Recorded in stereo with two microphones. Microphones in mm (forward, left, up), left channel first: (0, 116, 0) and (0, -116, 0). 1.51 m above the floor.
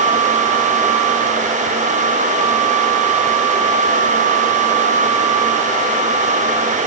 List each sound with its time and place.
Only background noise.